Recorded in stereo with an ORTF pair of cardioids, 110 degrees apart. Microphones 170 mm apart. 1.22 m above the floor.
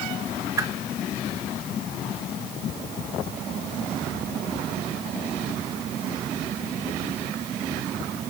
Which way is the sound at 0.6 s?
20° right.